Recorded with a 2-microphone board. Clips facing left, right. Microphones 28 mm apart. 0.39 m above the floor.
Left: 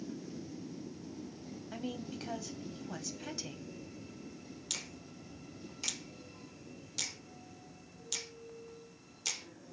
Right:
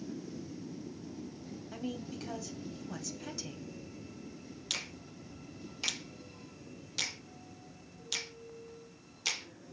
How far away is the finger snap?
About 0.8 m.